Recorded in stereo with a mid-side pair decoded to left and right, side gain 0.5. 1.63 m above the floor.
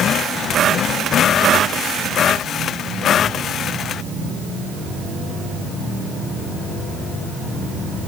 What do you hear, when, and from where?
Only background noise.